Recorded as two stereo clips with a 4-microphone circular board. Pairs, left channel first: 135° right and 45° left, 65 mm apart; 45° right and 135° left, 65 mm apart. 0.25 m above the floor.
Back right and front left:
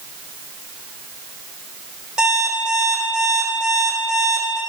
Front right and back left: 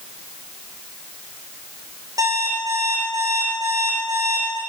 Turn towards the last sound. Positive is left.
turn(degrees=125)